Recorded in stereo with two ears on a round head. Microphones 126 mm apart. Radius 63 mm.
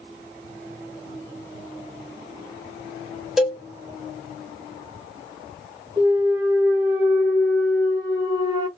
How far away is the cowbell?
About 0.9 m.